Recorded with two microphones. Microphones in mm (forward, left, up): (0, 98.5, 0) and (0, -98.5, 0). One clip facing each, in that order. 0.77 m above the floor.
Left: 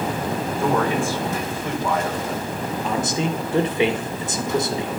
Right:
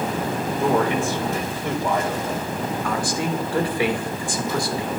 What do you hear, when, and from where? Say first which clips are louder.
0.5 s a man speaking: right 1 dB; 20° right (ahead or behind), 2.5 m
2.8 s a man speaking: left 3 dB; 20° left (ahead or behind), 1.0 m